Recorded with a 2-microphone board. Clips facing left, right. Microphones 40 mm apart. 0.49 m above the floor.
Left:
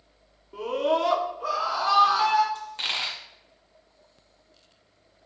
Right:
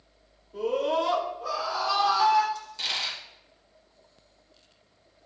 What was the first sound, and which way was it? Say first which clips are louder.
A scream: left 1 dB; 80° left.